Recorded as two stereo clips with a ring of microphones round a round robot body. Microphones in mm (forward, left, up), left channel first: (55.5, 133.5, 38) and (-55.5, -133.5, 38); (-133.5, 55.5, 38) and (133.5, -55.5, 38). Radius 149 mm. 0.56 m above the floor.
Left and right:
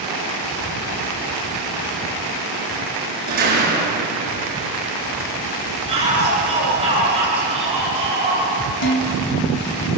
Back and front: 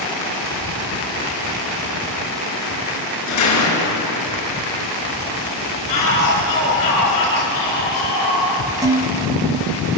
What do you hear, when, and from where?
3.3 s a door slam: 170° right, 6.5 m
5.9 s a shout: 175° left, 8.5 m
8.8 s dishes clattering: 55° left, 2.5 m